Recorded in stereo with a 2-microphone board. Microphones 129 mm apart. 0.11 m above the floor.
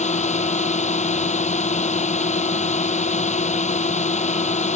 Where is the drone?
65° left (ahead or behind).